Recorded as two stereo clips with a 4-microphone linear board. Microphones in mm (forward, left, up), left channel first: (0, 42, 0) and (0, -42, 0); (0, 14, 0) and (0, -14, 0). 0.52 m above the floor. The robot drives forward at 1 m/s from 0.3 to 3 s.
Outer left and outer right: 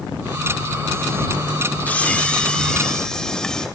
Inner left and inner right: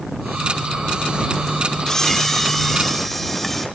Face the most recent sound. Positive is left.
turn(degrees=10)  # may be behind; listen again after turning